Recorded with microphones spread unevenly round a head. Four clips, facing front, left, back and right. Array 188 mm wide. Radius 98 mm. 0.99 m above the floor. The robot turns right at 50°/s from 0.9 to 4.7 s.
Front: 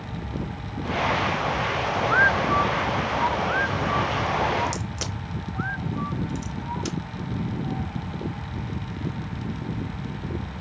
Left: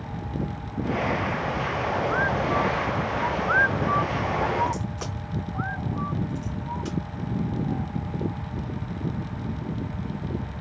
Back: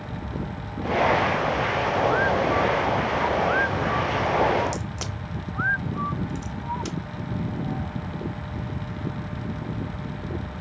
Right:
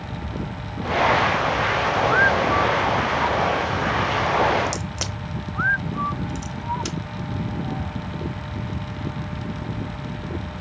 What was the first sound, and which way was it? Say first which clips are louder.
A crack: right 1 dB, even; 55° right.